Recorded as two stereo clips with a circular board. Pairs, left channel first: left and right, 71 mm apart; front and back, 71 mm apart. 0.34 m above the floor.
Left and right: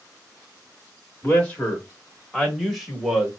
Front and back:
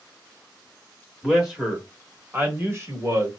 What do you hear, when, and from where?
1.2 s a man speaking: 90° left, 1.0 m; by 3.3 s 170° right, 1.3 m